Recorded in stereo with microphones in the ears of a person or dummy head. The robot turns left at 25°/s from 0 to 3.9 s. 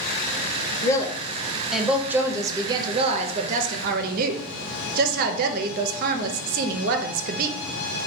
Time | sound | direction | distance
0.8 | a woman speaking | 20° left | 0.5 m